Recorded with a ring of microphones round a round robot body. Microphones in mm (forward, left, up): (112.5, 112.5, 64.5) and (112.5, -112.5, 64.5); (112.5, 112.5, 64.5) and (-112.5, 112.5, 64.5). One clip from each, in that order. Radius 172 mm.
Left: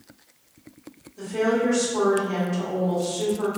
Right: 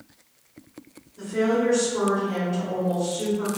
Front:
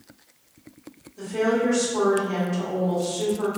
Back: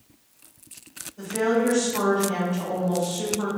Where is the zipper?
No zipper in this recording.